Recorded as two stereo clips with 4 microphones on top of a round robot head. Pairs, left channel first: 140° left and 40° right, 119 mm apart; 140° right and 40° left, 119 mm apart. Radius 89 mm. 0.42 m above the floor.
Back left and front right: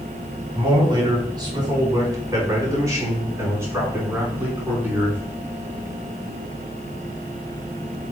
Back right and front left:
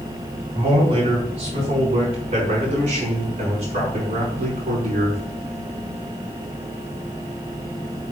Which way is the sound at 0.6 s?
10° left.